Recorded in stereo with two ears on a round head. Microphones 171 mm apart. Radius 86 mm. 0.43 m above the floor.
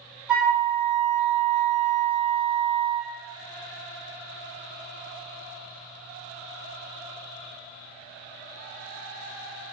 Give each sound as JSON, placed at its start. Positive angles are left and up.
{"t": 0.3, "sound": "a flute", "side_deg": -5, "distance_m": 0.9}